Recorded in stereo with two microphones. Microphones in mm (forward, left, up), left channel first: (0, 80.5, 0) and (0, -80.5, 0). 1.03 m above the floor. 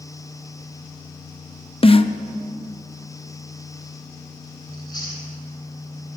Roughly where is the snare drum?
Left.